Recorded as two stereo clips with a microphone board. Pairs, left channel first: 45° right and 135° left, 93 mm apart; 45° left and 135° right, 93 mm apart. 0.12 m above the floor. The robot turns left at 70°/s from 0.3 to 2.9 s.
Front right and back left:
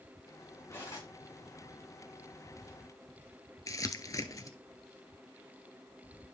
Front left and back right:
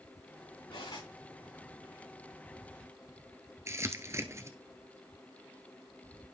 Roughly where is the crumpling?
Right.